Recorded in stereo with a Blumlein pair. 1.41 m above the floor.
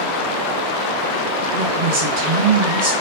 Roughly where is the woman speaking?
Ahead right.